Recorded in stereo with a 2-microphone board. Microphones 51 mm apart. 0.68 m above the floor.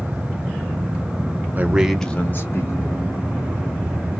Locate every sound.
1.6 s a man speaking: 35° right (ahead or behind), 0.6 m; by 3.0 s 60° left (ahead or behind), 1.3 m